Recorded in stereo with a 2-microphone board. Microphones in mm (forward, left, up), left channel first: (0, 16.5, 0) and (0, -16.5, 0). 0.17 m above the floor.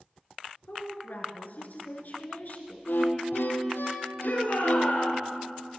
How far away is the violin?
About 2.0 m.